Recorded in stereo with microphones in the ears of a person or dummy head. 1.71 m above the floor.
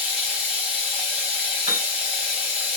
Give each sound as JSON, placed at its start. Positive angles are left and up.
{"t": 0.0, "sound": "running water", "side_deg": -5, "distance_m": 2.0}
{"t": 1.7, "sound": "a piano", "side_deg": -15, "distance_m": 3.5}